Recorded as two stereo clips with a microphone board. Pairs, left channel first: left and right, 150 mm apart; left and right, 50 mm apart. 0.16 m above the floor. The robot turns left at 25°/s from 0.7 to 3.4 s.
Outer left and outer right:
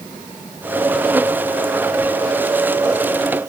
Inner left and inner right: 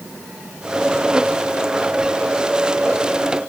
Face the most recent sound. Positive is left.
No sound to turn to.